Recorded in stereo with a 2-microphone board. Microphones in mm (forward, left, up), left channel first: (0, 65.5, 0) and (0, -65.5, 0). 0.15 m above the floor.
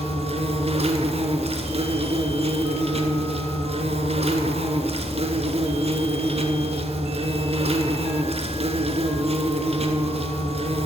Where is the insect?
50° right (ahead or behind), 0.7 m.